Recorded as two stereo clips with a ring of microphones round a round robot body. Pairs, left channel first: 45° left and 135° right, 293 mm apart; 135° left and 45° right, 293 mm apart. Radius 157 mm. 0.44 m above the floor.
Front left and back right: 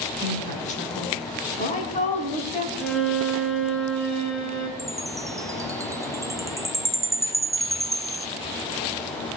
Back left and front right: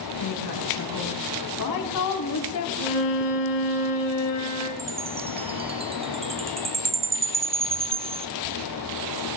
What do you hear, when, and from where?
0.2 s a woman speaking: 110° left, 6 m; by 2.7 s 115° left, 3.5 m
2.8 s a violin: 130° left, 3 m
4.8 s a chime: 75° right, 0.6 m